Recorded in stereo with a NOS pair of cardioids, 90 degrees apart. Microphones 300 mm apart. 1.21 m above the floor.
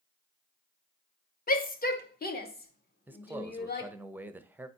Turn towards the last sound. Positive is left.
turn(degrees=-5)